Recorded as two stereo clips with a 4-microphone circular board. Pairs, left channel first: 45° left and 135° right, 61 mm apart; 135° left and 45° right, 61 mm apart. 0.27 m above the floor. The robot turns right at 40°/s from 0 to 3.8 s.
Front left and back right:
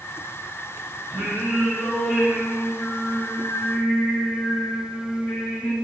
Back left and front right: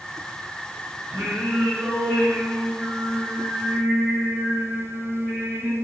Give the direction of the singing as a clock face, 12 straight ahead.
3 o'clock.